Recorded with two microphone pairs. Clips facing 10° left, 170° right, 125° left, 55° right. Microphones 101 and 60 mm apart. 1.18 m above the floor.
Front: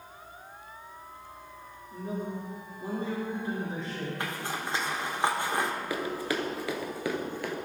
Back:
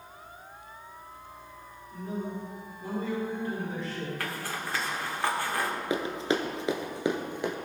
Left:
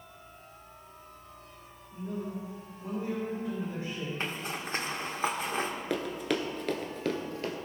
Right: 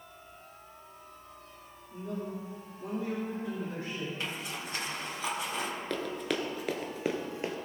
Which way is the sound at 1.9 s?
55° right.